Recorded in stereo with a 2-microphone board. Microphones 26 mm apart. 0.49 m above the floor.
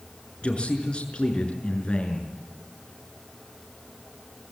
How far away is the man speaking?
About 6 m.